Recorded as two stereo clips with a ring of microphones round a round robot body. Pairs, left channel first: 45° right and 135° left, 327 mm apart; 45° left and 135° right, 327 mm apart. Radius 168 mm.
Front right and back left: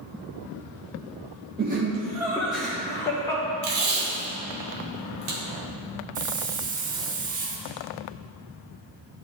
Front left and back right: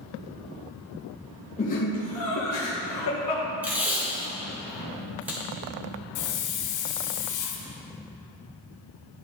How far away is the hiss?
About 0.8 m.